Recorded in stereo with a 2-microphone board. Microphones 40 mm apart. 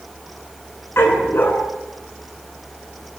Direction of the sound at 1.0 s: 80° left.